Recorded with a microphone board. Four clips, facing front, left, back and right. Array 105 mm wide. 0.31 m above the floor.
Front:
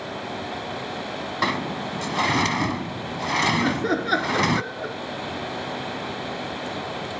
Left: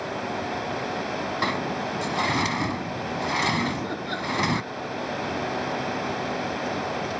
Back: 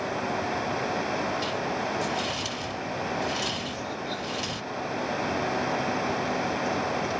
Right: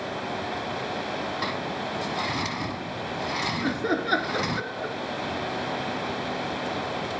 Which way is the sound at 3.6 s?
30° right.